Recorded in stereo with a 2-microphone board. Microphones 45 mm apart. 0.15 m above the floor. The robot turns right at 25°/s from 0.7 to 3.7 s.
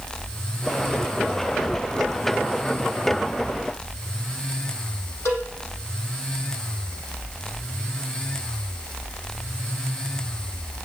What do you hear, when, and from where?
5.2 s a cowbell: 75° left (ahead or behind), 5 m